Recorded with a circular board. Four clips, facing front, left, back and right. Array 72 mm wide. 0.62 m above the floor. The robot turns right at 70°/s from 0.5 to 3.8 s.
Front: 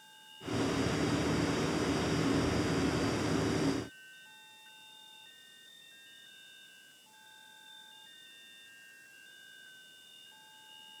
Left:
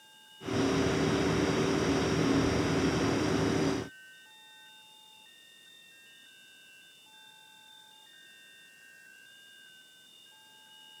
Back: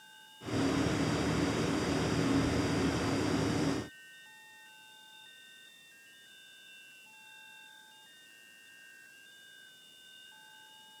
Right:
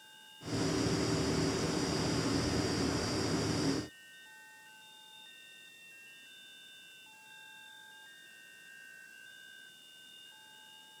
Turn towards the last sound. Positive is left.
No sound to turn to.